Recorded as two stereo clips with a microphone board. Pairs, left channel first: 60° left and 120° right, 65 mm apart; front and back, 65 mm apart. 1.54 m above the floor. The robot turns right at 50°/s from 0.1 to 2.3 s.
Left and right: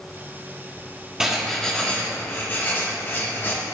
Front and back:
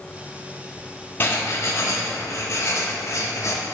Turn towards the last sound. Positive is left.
turn(degrees=10)